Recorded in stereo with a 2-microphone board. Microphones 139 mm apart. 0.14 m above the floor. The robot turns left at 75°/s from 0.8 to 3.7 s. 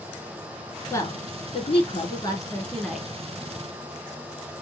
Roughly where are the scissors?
No scissors in this recording.